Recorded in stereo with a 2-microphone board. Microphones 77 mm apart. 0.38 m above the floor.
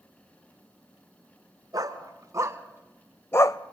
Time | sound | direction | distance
1.7 | a dog barking | 55° right (ahead or behind) | 2.5 m